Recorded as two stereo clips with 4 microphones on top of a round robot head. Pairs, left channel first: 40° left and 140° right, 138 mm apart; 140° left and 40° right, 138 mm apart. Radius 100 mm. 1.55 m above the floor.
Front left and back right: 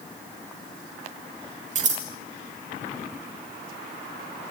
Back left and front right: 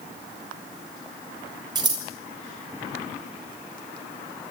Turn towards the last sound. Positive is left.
turn(degrees=-100)